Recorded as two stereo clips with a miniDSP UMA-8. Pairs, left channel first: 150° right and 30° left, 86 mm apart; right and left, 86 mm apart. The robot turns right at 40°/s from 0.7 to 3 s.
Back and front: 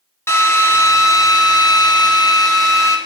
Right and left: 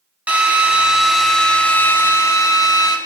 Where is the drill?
160° left, 1.4 m; by 3.0 s 110° right, 1.4 m.